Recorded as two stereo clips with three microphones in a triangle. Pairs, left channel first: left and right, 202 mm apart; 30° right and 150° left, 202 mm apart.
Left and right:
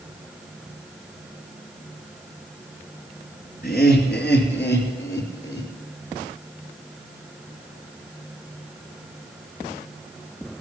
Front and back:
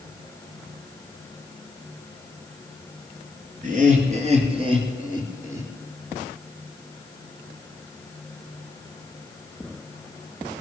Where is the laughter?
110° left, 3 m; by 5.7 s 75° left, 3 m.